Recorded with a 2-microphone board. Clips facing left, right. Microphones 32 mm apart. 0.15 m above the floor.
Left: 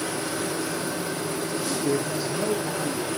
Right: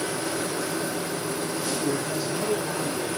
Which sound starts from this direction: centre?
A man speaking, at 1.5 s.